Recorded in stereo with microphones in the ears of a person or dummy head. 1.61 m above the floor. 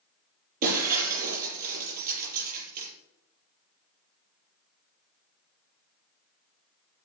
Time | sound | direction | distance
0.6 | breaking glass | 55° right (ahead or behind) | 6.5 m